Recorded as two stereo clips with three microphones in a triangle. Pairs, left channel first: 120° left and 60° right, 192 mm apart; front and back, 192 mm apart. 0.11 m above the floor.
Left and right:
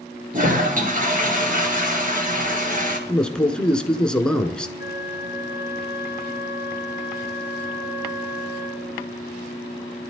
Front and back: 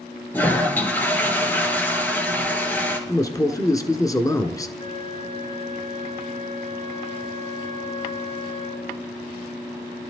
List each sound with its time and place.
0.3 s a toilet flushing: 75° right, 2.5 m
3.1 s a man speaking: 40° left, 1.1 m
4.8 s a flute: straight ahead, 1.9 m